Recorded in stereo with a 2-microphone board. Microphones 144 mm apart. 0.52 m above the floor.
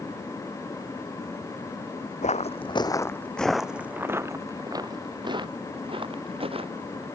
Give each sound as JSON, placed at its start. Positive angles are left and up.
{"t": 2.2, "sound": "footsteps", "side_deg": 55}